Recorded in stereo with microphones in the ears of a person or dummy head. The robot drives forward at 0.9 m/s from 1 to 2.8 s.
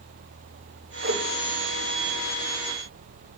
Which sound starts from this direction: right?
A whoosh, at 1.0 s.